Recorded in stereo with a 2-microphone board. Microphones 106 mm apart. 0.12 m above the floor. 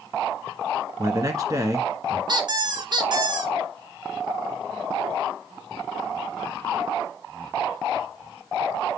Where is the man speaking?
35° right (ahead or behind), 1.4 m.